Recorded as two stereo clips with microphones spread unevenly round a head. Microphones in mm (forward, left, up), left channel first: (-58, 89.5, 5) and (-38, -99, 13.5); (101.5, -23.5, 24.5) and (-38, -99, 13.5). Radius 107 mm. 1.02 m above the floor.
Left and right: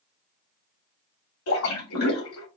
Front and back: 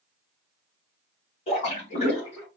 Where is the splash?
90° left, 2.5 m.